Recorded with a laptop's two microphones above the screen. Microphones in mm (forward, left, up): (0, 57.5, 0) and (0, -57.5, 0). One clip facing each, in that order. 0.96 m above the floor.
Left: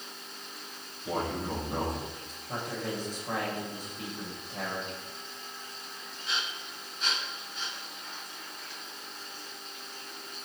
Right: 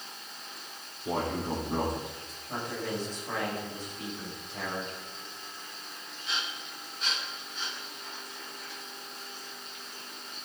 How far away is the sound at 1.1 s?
About 3.5 m.